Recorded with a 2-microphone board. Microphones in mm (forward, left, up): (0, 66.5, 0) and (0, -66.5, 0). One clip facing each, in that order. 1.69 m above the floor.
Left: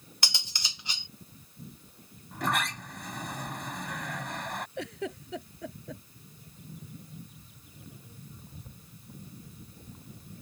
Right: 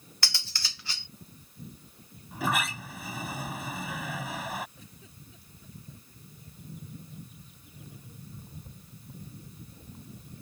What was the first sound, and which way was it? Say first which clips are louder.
Cutlery clinking: left 1 dB; 20° left (ahead or behind).